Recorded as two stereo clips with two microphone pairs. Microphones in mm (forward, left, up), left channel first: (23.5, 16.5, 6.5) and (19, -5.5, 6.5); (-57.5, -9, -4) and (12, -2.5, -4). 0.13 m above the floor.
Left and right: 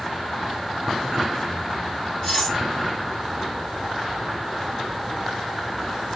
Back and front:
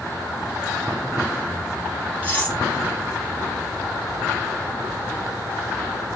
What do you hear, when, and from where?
2.2 s cutlery clinking: 125° left, 1.6 m